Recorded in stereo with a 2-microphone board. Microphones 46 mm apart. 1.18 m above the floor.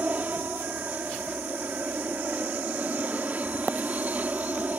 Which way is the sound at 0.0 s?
35° right (ahead or behind).